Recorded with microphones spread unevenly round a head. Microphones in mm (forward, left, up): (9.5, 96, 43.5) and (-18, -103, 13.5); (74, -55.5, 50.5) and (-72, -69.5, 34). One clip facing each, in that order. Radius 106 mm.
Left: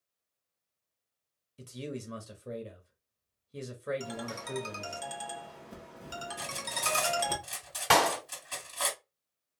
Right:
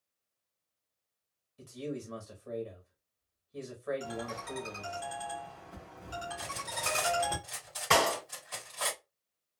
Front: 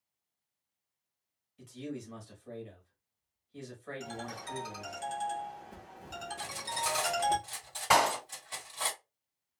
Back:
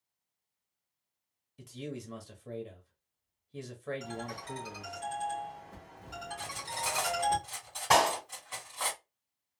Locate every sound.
1.6 s a man speaking: 135° left, 1.0 m
4.0 s a ringtone: 60° left, 1.0 m
6.4 s cutlery clinking: 90° left, 2 m
7.9 s a clap: 90° left, 2 m